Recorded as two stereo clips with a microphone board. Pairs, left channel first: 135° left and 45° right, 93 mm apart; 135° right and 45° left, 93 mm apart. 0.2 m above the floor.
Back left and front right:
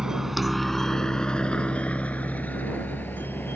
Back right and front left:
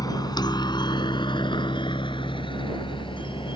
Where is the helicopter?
125° right; by 3.6 s 160° right.